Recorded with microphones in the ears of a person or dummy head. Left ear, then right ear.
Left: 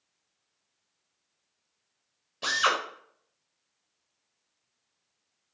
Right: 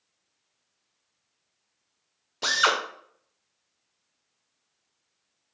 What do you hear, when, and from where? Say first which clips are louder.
2.4 s a drill: right 3 dB; 15° right (ahead or behind), 0.7 m